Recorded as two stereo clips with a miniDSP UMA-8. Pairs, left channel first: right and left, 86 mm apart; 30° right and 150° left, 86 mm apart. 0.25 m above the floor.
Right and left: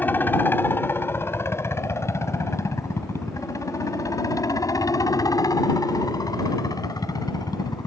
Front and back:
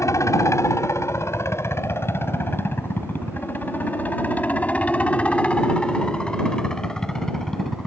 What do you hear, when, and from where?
0.0 s a helicopter: 40° right; by 7.9 s 115° right